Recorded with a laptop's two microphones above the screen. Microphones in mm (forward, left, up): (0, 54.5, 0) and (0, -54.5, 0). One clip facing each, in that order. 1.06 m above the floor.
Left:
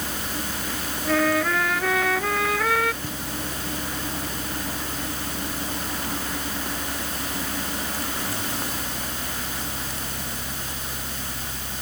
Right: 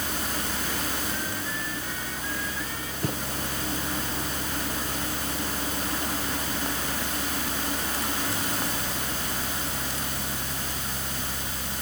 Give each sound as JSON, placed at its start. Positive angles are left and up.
{"t": 0.0, "sound": "a fan", "side_deg": -20}
{"t": 1.1, "sound": "a trumpet", "side_deg": 85}
{"t": 3.0, "sound": "a thud", "side_deg": -55}